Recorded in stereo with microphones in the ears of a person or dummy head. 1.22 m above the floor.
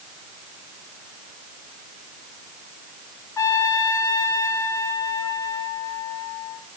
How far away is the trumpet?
About 0.7 m.